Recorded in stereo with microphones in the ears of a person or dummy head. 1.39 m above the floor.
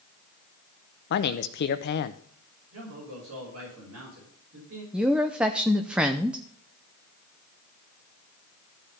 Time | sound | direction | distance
1.1 | a man speaking | 60° left (ahead or behind) | 0.8 m
2.7 | a man speaking | 80° right | 5 m
4.9 | a woman speaking | 5° right (ahead or behind) | 0.7 m